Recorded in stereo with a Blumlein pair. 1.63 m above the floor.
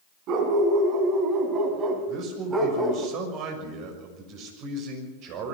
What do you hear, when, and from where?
0.3 s a dog barking: 35° right, 4 m; by 3.1 s 5° right, 2.5 m
2.1 s a man speaking: 35° right, 6.5 m